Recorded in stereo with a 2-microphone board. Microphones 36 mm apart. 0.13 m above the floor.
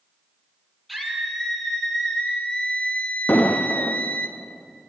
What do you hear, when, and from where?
0.9 s a scream: centre (ahead or behind), 3.5 m; by 4.3 s 55° left (ahead or behind), 2 m
3.3 s an explosion: 75° left (ahead or behind), 2.0 m